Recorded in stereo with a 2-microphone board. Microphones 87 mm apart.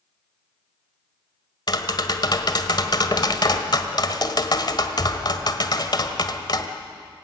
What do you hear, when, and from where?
1.7 s tapping: 55° left (ahead or behind), 1.7 m